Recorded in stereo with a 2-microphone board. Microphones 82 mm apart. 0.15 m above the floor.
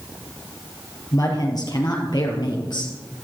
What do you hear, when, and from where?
1.1 s a woman speaking: 50° left (ahead or behind), 3 m; by 2.9 s 65° left (ahead or behind), 3 m